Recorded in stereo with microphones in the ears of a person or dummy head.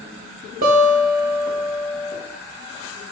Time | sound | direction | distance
0.6 | a guitar | 40° right (ahead or behind) | 0.8 m